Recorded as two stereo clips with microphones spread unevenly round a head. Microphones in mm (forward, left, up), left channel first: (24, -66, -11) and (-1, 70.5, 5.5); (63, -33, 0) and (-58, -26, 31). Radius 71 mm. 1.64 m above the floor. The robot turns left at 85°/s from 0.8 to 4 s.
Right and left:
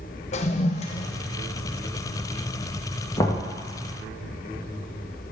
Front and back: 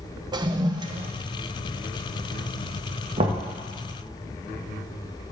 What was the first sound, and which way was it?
A toilet flushing, 130° right.